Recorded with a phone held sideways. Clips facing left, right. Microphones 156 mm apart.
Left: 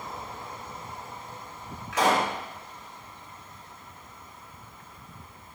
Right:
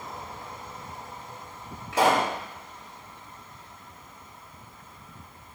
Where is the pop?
30° right (ahead or behind), 4 m.